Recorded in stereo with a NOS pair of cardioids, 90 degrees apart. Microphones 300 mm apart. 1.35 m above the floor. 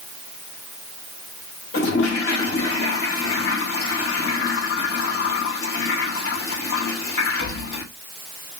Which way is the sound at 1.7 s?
50° left.